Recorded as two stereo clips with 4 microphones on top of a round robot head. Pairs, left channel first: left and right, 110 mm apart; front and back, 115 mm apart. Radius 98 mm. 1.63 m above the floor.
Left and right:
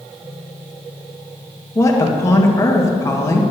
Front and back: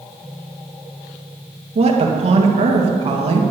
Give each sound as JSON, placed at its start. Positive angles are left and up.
{"t": 1.8, "sound": "a woman speaking", "azimuth_deg": 155, "distance_m": 1.9}